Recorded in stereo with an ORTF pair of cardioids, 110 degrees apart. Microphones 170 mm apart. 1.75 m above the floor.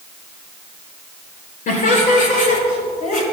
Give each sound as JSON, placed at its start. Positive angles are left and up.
{"t": 1.7, "sound": "laughter", "azimuth_deg": 50, "distance_m": 6.0}